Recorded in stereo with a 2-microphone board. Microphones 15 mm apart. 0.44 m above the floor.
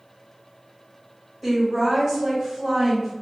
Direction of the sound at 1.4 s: 20° right (ahead or behind).